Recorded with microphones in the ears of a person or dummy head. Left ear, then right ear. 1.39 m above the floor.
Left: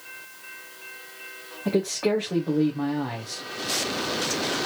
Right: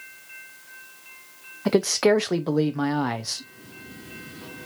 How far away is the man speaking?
About 0.5 m.